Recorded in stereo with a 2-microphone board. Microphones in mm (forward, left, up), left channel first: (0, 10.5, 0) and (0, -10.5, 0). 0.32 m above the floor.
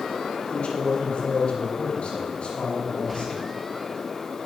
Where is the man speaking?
60° left (ahead or behind), 6 m; by 3.5 s 55° left (ahead or behind), 7.5 m.